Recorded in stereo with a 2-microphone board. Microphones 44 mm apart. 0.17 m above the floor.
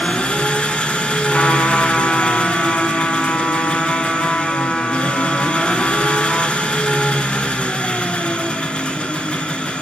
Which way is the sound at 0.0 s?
25° left (ahead or behind).